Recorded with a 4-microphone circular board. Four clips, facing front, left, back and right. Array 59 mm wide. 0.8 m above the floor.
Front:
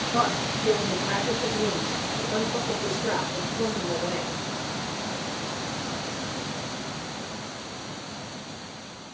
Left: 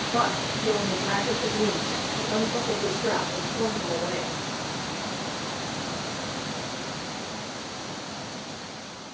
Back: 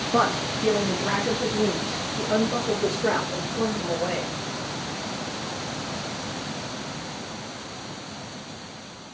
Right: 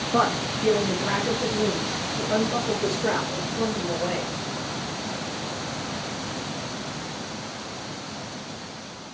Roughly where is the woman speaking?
Behind right.